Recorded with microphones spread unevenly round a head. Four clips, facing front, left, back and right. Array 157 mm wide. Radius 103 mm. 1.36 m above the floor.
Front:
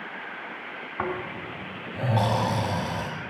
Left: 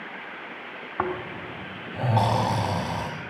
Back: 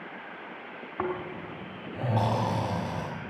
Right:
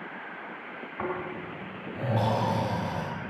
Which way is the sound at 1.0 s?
130° left.